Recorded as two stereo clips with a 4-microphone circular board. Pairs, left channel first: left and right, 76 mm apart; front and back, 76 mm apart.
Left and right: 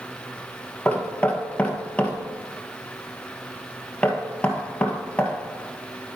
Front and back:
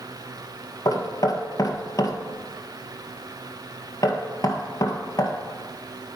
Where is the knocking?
20° left, 1.8 m.